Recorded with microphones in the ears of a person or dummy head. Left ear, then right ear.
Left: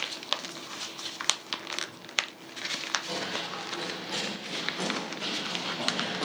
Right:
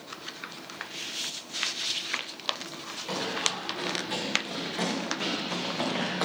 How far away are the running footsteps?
About 5.5 m.